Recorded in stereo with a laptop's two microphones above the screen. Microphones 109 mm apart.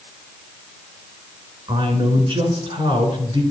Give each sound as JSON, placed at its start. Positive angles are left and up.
{"t": 1.7, "sound": "a man speaking", "side_deg": -55, "distance_m": 3.5}